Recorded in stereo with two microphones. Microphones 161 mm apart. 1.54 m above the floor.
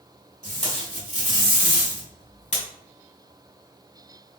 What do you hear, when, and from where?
0.4 s tape being pulled: 45° left (ahead or behind), 2.5 m